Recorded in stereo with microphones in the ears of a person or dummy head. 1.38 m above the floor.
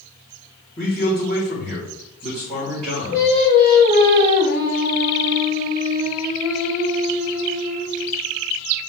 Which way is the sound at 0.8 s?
25° left (ahead or behind).